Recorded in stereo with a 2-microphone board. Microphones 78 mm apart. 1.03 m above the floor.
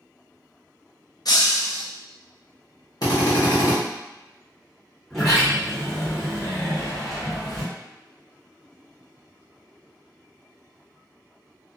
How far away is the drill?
About 1.0 m.